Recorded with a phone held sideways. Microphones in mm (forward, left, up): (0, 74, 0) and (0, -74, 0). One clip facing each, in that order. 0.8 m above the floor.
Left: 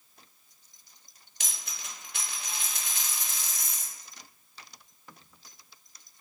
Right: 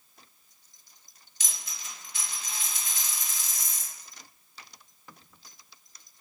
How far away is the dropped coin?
About 0.7 m.